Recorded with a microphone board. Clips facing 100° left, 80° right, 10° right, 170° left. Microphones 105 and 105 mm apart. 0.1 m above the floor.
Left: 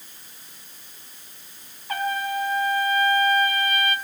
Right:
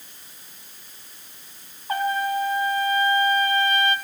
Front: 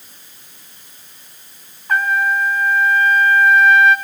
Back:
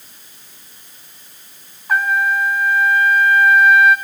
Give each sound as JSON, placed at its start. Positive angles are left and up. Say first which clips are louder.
{"t": 1.9, "sound": "a trumpet", "louder": "right 3 dB, even", "azimuth_deg": -105, "distance_m": 1.1}